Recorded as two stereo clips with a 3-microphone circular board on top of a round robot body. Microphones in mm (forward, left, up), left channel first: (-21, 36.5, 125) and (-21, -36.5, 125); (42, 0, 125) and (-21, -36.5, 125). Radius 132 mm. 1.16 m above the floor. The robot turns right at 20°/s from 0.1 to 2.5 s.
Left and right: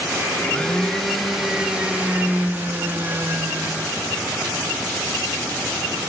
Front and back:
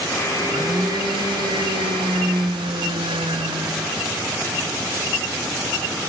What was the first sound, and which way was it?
A blender, 165° left.